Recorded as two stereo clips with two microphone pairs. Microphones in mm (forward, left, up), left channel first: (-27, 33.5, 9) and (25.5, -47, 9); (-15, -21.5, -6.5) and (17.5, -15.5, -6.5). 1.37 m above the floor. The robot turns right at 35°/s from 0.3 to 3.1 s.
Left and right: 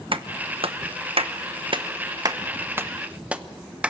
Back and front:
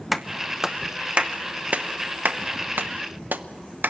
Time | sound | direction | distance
0.1 | a clap | 80° right | 0.9 m